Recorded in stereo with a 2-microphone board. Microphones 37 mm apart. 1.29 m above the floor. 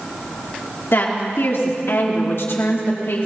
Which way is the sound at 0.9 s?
75° left (ahead or behind).